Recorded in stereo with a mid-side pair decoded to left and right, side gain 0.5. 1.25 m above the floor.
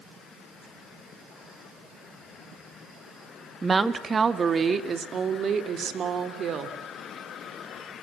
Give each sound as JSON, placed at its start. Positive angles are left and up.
{"t": 3.6, "sound": "a woman speaking", "azimuth_deg": -25, "distance_m": 1.5}